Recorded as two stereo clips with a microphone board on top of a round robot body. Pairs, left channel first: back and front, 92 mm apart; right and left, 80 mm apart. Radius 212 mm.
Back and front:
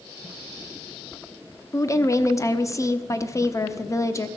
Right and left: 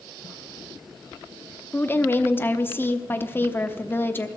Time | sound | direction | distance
1.7 | a woman speaking | 140° right | 1.2 m